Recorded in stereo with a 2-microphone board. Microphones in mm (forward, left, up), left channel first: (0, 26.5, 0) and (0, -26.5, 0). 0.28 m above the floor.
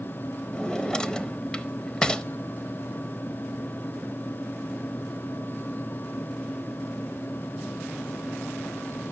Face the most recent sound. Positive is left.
turn(degrees=15)  # may be behind; listen again after turning